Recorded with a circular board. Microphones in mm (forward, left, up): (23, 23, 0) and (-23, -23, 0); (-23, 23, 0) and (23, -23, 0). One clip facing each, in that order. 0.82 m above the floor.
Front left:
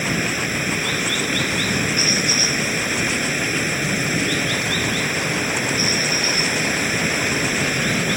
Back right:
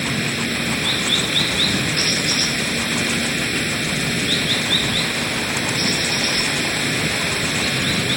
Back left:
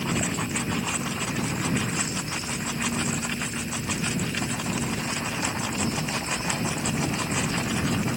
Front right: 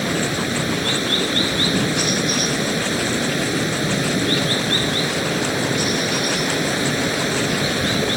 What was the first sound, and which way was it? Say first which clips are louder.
Running water: front left 1 dB, front right 6 dB; 35° right.